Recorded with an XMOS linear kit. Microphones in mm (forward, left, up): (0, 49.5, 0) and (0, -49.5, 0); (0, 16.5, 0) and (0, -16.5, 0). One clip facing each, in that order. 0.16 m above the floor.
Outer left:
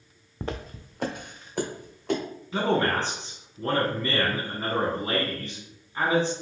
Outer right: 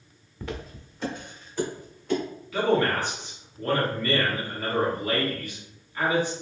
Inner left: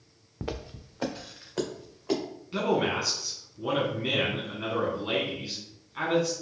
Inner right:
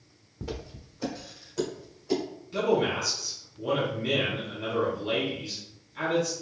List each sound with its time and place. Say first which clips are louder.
0.4 s footsteps: outer left 2 dB, inner left 2 dB; 35° left (ahead or behind), 0.5 m; by 2.2 s 75° left (ahead or behind), 2 m
2.5 s a man speaking: outer right 1 dB, inner right 1 dB; 30° left (ahead or behind), 1.1 m